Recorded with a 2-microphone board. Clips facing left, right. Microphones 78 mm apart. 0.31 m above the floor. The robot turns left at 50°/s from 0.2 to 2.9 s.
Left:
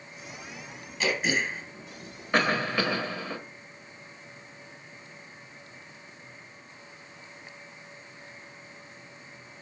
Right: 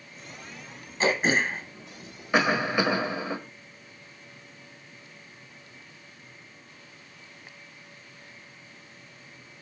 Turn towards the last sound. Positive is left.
turn(degrees=-20)  # may be behind; listen again after turning